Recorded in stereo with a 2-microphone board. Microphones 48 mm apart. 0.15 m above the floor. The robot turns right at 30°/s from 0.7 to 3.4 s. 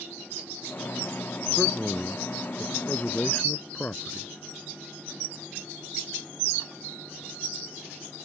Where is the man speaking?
5° right; by 4.3 s 50° left.